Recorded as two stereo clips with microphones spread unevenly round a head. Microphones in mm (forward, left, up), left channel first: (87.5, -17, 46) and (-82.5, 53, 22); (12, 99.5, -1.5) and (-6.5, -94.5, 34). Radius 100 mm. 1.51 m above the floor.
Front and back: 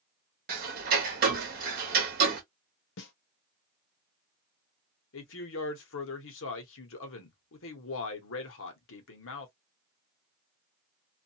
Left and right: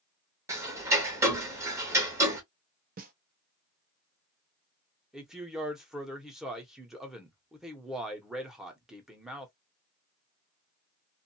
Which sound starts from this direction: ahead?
A man speaking, at 5.1 s.